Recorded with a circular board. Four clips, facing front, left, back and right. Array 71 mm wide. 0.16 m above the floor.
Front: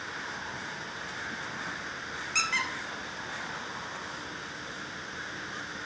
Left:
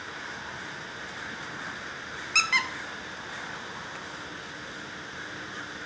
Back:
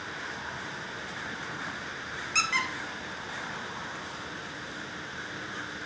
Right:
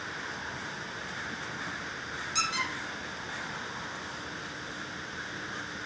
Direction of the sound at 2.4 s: 90° left.